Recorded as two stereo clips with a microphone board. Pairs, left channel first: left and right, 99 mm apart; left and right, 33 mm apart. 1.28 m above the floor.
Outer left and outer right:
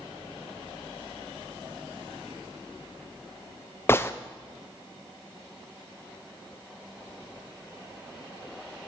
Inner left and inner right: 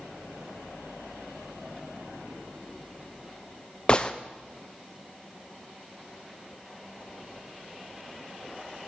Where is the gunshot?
25° left (ahead or behind), 0.5 m.